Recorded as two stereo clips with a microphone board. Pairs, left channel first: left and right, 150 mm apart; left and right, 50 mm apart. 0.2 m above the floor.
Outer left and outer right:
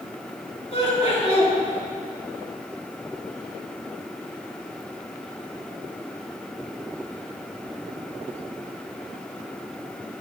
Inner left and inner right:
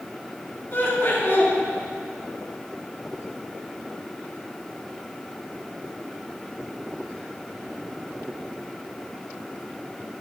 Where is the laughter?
40° left (ahead or behind), 2.5 m.